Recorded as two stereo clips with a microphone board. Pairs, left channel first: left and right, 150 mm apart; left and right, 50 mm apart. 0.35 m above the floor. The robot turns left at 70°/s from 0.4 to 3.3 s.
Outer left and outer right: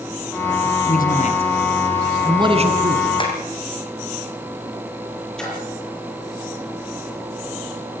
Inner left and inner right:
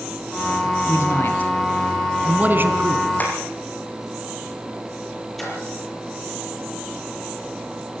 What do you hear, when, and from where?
0.9 s a man speaking: 70° left (ahead or behind), 2.5 m; by 3.1 s 70° right (ahead or behind), 2.5 m
3.2 s tapping: 30° left (ahead or behind), 5 m; by 3.3 s 40° left (ahead or behind), 5 m
5.4 s a splash: 5° left (ahead or behind), 8 m